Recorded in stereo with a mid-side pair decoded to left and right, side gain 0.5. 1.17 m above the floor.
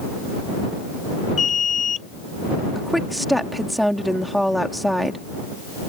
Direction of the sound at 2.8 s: Straight ahead.